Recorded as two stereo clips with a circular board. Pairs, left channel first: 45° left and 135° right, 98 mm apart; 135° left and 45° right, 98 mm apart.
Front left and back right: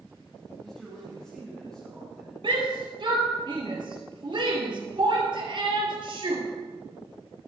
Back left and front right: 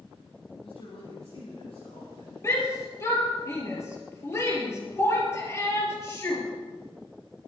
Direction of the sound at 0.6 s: 130° left.